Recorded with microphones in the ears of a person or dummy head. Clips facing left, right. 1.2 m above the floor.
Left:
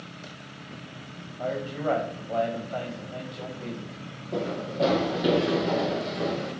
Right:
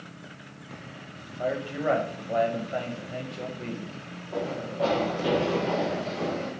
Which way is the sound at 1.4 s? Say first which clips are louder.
Right 1 dB; 15° right (ahead or behind).